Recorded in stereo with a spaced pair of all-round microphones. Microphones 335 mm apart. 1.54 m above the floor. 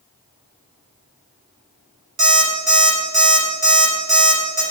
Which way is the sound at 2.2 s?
60° right (ahead or behind).